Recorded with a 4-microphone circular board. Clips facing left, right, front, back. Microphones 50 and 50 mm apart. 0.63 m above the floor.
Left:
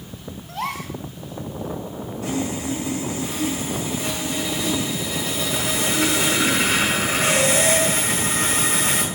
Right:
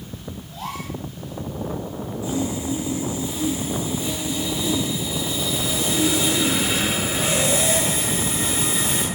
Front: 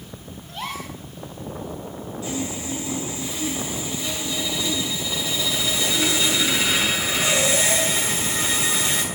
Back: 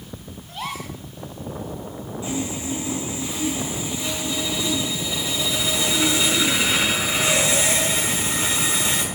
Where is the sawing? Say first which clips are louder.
Even, back 2 dB; 115° left, 5.5 m.